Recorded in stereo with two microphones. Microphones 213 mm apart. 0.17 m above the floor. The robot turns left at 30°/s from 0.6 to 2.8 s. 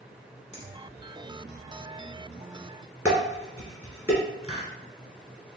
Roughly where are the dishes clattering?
Centre.